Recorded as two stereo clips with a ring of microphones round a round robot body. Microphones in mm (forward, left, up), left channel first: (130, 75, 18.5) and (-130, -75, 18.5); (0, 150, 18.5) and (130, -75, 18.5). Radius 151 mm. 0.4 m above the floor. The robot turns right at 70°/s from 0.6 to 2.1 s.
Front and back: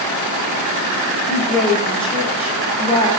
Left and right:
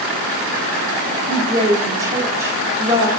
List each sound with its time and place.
1.3 s a woman speaking: 60° right, 0.8 m; by 3.1 s straight ahead, 0.8 m